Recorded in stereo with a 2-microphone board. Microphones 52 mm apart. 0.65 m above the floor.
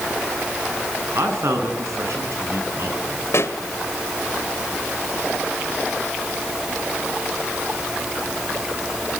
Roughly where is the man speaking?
Right.